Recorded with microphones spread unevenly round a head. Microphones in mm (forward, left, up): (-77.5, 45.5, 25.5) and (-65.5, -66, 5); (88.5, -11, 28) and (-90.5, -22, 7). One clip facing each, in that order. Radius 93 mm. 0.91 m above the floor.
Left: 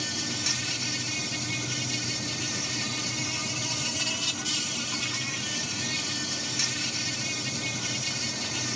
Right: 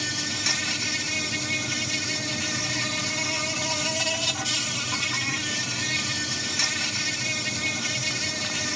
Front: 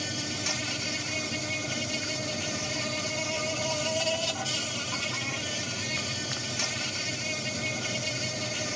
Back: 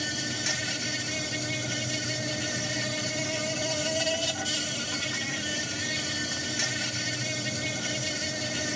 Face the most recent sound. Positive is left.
turn(degrees=-100)